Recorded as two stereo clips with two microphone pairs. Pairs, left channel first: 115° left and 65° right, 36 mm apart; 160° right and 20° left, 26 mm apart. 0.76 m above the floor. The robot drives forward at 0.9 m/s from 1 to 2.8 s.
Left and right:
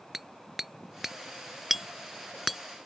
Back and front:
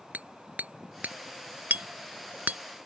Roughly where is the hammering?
Ahead.